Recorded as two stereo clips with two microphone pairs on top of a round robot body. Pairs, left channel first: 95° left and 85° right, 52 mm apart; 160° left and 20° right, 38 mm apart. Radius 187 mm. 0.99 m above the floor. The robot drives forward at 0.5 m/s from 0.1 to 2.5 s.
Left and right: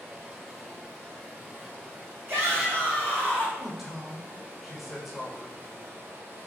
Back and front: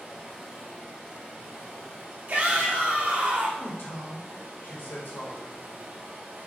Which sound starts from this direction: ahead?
Running water, at 0.0 s.